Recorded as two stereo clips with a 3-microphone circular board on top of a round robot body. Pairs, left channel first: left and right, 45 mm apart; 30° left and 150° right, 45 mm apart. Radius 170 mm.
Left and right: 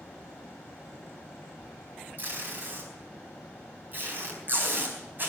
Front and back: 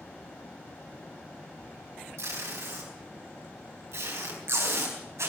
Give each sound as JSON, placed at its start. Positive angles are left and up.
{"t": 2.2, "sound": "tape being pulled", "azimuth_deg": -135, "distance_m": 4.0}